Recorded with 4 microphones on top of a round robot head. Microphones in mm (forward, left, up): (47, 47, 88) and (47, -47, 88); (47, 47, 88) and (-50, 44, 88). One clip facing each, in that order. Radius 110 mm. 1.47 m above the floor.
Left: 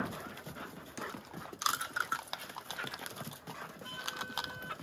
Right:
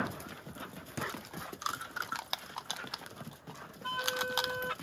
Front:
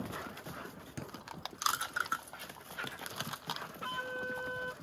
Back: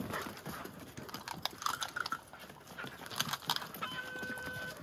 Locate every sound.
1.0 s a thud: 50° right
3.8 s a flute: 60° right